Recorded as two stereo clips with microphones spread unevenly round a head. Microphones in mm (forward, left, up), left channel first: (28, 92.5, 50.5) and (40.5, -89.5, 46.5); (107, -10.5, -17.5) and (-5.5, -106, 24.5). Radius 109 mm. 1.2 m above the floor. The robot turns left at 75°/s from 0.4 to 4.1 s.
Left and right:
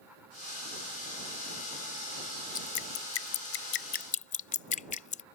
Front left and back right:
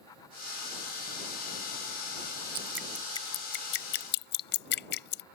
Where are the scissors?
No scissors in this recording.